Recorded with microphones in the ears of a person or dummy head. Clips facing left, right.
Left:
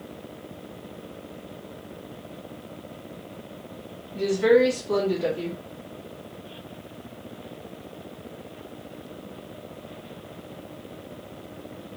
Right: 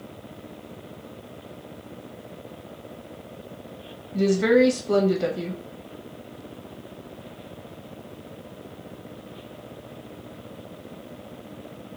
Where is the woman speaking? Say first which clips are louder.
Even; 60° right (ahead or behind), 1.2 m.